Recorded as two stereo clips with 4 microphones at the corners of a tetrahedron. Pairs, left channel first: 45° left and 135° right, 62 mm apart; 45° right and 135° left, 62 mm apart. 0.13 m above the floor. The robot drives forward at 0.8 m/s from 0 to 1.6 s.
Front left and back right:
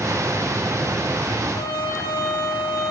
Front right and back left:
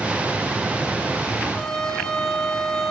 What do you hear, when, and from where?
1.5 s a trumpet: 30° left, 5 m